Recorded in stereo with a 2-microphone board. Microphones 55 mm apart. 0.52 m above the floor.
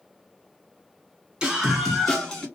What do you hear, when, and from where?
1.4 s a scream: 15° right (ahead or behind), 1.5 m; by 2.5 s 15° left (ahead or behind), 1.9 m